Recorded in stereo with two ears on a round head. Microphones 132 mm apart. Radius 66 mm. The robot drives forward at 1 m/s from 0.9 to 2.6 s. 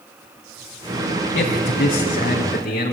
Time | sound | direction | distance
1.3 | a man speaking | 75° left (ahead or behind) | 2.5 m